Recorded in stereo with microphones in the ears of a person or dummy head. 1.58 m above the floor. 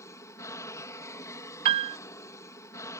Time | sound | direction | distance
0.0 | an aircraft | 15° left (ahead or behind) | ?
1.6 | a piano | 30° right (ahead or behind) | ?